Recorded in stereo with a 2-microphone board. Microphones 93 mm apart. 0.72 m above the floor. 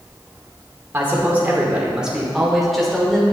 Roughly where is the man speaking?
Right.